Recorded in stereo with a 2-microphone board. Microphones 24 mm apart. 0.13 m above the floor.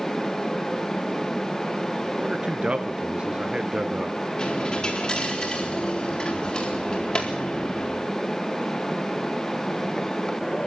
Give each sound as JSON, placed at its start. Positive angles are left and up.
{"t": 2.2, "sound": "a man speaking", "side_deg": -45, "distance_m": 1.8}
{"t": 4.4, "sound": "a dropped coin", "side_deg": 30, "distance_m": 4.0}